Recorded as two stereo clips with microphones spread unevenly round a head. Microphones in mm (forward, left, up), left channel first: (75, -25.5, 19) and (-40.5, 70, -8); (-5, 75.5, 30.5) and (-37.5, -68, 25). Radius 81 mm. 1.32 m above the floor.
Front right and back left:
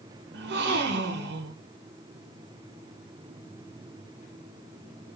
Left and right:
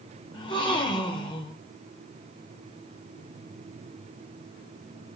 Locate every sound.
0.3 s a gasp: 135° left, 1.2 m